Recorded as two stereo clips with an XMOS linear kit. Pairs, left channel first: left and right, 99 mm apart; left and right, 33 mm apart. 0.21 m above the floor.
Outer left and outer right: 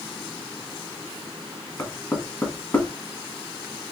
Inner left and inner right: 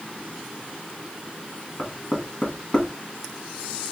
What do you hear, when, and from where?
1.8 s knocking: 20° left (ahead or behind), 1.7 m